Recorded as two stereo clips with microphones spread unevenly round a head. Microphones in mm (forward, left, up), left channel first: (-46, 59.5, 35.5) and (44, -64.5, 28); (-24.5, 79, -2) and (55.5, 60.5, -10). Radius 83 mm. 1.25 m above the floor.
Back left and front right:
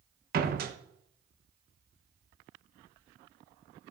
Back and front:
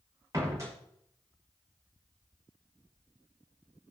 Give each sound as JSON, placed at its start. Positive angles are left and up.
{"t": 0.3, "sound": "a door slam", "azimuth_deg": -85, "distance_m": 1.0}